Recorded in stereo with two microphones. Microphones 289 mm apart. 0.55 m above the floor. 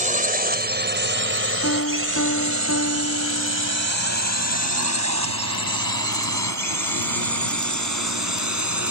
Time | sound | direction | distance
0.0 | a drone | 25° right (ahead or behind) | ?
1.6 | a piano | 55° left (ahead or behind) | ?